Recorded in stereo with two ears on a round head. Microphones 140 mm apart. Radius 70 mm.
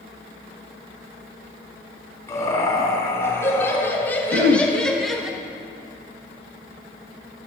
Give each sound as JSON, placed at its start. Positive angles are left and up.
{"t": 2.3, "sound": "laughter", "side_deg": 20, "distance_m": 4.0}
{"t": 4.3, "sound": "throat clearing", "side_deg": -75, "distance_m": 1.0}